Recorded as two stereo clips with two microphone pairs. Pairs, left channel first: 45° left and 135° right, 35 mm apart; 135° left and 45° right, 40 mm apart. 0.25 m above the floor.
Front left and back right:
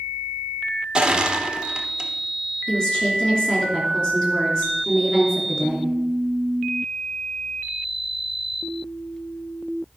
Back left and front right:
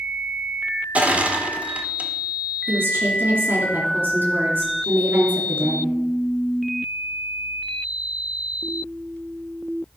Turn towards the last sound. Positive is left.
turn(degrees=-20)